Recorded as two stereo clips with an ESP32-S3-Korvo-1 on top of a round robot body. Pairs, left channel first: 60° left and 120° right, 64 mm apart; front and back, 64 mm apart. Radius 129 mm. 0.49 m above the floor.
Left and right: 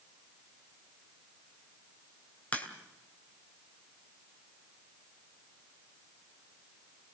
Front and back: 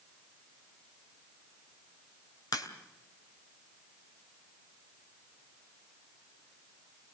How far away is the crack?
About 2.5 m.